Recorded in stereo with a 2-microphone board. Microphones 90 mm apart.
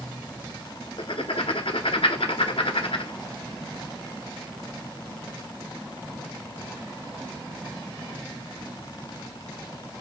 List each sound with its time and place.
1.0 s writing: 80° left, 0.7 m